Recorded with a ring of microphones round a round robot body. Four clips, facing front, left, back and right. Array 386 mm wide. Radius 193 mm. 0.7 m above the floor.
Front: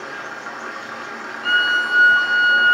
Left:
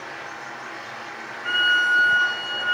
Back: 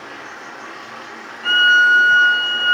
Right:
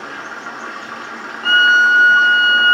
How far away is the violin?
About 5.5 m.